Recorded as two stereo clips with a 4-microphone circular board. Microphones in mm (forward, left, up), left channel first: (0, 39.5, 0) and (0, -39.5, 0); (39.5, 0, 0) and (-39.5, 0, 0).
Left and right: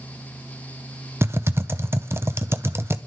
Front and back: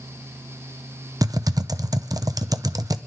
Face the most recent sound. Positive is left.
turn(degrees=-145)